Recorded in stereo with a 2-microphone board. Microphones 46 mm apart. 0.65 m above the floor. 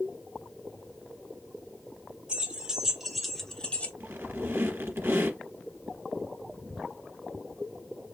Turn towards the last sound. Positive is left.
turn(degrees=-55)  # may be behind; listen again after turning